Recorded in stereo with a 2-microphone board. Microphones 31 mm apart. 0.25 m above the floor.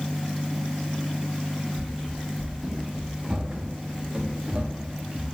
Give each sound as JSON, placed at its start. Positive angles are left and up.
{"t": 1.8, "sound": "running footsteps", "side_deg": -10, "distance_m": 4.0}